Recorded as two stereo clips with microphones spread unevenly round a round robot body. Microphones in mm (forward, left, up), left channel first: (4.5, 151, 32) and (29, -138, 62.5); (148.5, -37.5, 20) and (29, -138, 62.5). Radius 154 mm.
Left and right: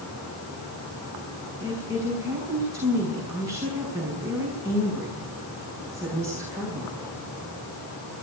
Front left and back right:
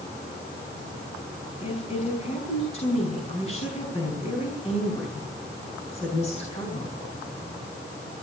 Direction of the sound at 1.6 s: 5° right.